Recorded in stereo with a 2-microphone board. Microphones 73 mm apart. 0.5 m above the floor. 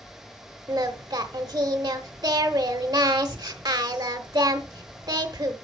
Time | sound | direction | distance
0.7 | singing | 70° right (ahead or behind) | 1.0 m